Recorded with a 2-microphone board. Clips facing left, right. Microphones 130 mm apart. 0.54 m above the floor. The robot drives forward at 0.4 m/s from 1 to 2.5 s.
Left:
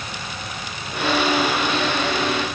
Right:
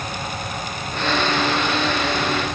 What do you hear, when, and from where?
Only background noise.